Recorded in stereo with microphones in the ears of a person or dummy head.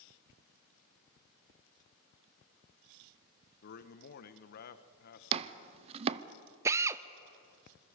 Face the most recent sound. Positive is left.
turn(degrees=-15)  # may be behind; listen again after turning